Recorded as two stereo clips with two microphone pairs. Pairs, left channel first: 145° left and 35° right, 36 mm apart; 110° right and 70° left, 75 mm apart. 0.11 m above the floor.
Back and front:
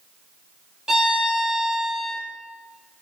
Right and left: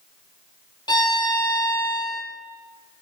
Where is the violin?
105° right, 0.5 m.